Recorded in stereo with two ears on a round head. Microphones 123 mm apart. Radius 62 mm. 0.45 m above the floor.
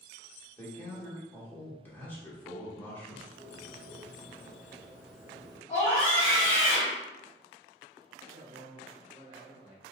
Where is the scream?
25° left (ahead or behind), 1.3 m.